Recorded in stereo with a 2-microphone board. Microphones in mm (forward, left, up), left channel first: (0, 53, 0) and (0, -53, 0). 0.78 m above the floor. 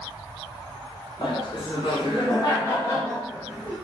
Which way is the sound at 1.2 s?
50° left (ahead or behind).